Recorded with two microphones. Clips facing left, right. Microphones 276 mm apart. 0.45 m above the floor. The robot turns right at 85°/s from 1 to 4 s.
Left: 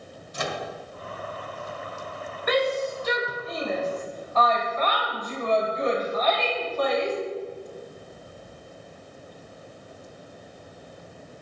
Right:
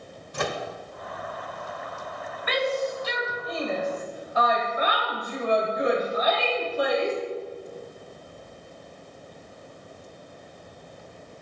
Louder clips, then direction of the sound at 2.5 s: Left 2 dB; 50° left (ahead or behind).